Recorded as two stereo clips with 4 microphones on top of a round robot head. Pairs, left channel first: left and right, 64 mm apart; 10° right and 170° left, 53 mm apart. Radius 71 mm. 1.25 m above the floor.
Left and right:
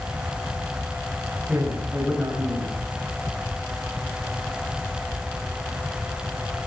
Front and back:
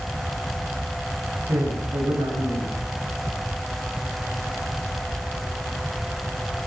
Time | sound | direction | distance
1.5 | a man speaking | 165° right | 7.5 m